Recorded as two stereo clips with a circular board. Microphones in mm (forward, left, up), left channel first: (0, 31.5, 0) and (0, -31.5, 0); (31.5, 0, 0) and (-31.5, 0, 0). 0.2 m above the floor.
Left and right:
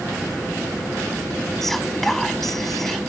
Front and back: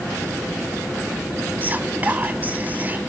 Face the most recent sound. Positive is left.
turn(degrees=170)